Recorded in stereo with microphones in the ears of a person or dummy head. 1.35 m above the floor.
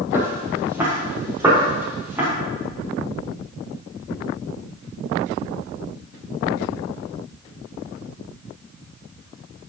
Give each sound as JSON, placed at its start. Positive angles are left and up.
{"t": 0.1, "sound": "footsteps", "side_deg": -15, "distance_m": 2.5}